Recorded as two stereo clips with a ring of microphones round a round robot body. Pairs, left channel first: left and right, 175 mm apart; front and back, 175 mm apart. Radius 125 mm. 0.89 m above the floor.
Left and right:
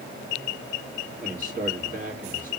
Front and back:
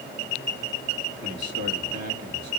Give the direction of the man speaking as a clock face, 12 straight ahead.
5 o'clock.